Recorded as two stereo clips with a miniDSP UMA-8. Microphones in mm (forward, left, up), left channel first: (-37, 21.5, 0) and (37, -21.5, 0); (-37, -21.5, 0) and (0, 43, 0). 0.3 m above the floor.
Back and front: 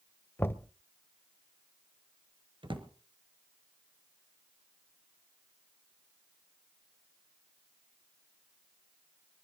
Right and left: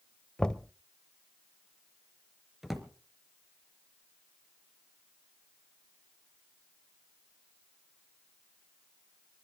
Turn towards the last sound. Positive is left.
turn(degrees=-25)